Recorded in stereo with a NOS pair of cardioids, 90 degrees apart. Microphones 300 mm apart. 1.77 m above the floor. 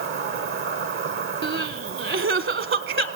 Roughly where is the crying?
Ahead right.